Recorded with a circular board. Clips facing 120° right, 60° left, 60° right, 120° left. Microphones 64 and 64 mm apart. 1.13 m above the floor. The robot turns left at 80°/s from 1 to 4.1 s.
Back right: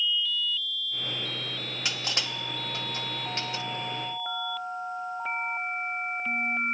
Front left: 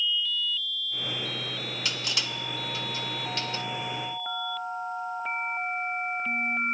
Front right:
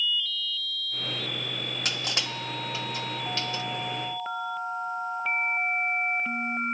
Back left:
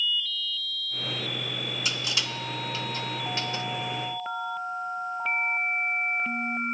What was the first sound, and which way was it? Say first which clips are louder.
Crushing: back right 1 dB, even; 55° right.